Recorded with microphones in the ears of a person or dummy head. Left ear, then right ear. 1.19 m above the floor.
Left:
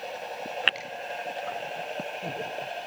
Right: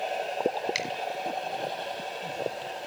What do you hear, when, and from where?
0.8 s a finger snap: 50° right (ahead or behind), 4.5 m